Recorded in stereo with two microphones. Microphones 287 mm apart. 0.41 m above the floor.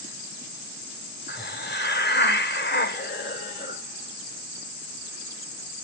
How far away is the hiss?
About 1.1 m.